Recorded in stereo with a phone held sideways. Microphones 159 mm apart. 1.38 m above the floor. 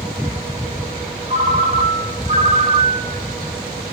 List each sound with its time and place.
1.3 s a ringtone: 50° right (ahead or behind), 1.3 m